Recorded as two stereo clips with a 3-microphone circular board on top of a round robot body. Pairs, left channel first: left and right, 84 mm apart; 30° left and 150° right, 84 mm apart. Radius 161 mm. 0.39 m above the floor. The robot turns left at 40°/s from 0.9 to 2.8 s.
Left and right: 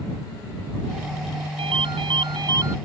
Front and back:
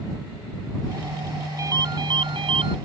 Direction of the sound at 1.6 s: 95° right.